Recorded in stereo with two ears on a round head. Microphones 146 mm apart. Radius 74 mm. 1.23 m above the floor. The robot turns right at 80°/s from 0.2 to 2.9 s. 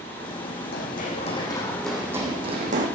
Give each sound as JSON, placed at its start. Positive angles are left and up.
{"t": 0.7, "sound": "running footsteps", "side_deg": 65, "distance_m": 3.5}